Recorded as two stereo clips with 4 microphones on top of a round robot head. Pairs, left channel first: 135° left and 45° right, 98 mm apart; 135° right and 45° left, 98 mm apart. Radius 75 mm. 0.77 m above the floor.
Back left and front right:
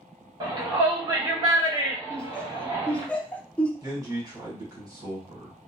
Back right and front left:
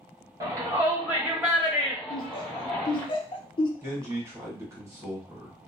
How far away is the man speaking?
About 1.5 m.